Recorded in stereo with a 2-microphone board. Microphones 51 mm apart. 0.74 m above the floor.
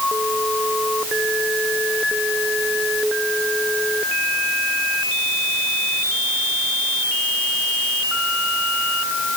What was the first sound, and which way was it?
Only background noise.